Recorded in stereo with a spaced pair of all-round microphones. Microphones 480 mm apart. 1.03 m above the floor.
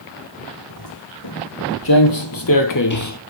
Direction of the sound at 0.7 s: 50° left (ahead or behind).